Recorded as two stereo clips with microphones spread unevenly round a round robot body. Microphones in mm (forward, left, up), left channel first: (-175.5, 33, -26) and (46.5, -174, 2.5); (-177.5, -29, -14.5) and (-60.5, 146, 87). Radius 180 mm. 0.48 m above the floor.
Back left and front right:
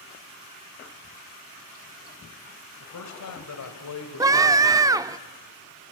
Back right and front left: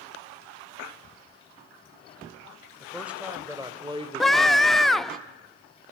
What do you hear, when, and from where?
2.8 s a man speaking: 155° left, 3 m; by 5.1 s 100° left, 1.9 m
4.2 s a scream: 120° right, 0.7 m